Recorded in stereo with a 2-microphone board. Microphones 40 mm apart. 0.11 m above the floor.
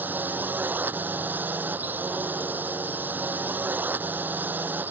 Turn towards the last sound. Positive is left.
turn(degrees=-55)  # may be behind; listen again after turning